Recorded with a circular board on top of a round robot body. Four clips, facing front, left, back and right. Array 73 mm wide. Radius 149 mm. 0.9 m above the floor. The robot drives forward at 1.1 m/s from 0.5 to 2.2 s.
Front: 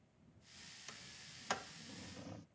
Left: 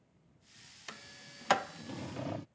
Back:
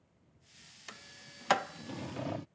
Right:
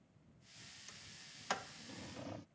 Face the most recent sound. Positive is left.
turn(degrees=150)